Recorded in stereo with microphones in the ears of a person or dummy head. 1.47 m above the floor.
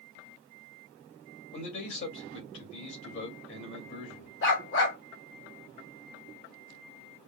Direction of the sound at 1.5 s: 60° left (ahead or behind).